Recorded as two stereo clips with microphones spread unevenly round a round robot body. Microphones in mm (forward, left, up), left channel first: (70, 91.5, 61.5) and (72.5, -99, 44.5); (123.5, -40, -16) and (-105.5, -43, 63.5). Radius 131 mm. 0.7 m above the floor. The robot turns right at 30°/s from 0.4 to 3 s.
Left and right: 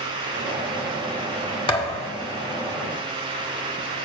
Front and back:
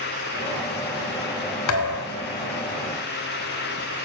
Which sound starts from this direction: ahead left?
A thud, at 1.7 s.